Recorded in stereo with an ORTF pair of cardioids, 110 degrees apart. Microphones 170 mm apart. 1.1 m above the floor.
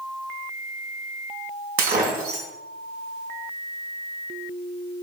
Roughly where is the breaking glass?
Ahead right.